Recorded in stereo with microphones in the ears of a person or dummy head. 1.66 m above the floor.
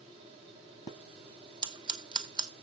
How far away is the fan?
About 7.5 m.